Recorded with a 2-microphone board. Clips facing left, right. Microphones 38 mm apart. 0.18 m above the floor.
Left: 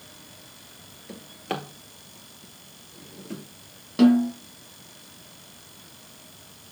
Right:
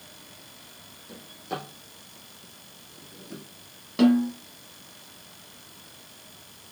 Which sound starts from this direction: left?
A drawer, at 1.1 s.